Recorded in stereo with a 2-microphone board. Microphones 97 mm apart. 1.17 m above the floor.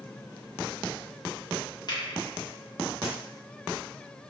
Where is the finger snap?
50° left (ahead or behind), 1.0 m.